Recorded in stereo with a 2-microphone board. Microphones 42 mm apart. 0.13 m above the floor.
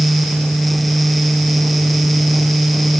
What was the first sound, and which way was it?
Only background noise.